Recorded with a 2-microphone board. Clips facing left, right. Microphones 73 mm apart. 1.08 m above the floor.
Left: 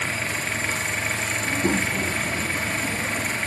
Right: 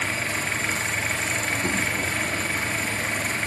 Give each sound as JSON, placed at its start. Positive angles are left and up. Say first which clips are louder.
{"t": 1.4, "sound": "a child speaking", "louder": "left 6 dB", "side_deg": 30}